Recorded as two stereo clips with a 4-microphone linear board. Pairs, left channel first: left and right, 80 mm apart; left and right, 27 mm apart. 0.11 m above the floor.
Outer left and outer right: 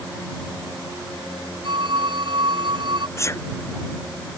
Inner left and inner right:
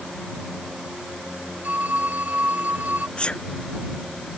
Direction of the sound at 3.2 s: 35° left (ahead or behind).